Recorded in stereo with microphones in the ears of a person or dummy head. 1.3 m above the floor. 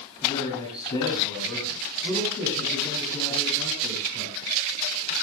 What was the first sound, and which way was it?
A man speaking, 30° left (ahead or behind).